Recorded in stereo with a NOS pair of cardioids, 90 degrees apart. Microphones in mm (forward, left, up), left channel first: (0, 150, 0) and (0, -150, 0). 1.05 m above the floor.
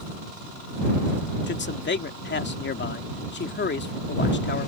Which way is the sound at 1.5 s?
35° left.